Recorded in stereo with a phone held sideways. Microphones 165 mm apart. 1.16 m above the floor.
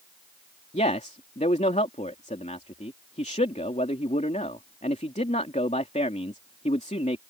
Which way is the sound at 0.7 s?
45° left (ahead or behind).